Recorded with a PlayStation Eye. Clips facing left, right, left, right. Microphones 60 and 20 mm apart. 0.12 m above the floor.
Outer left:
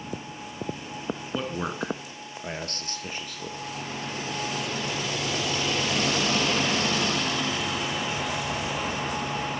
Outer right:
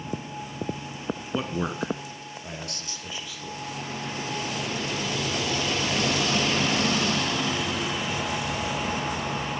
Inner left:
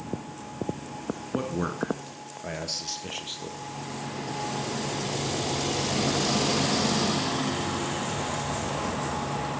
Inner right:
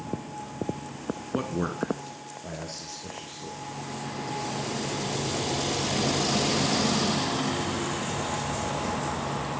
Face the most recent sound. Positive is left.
turn(degrees=50)  # may be behind; listen again after turning